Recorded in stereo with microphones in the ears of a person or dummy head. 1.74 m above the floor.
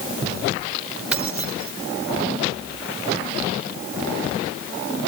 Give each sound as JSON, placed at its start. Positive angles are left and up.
{"t": 1.1, "sound": "keys jangling", "side_deg": -10, "distance_m": 1.4}